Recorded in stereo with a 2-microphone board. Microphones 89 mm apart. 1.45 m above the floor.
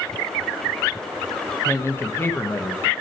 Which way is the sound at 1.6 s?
30° left (ahead or behind).